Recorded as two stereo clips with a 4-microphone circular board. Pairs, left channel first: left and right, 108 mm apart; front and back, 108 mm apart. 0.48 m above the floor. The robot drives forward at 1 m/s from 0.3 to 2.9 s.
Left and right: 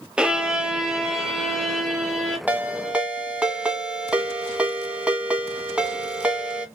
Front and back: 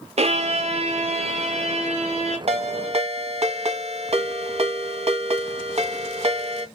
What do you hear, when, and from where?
0.2 s a violin: 170° right, 0.9 m; by 2.4 s 175° right, 3 m
2.5 s a ringtone: 165° right, 1.1 m; by 6.7 s 170° right, 1.5 m